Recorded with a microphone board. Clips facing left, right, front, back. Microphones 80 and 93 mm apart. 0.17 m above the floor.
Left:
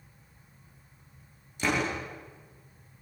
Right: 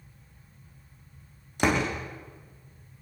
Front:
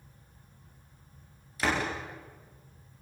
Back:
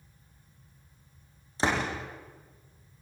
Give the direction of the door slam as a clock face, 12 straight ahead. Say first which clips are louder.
Right 3 dB, back 1 dB; 4 o'clock.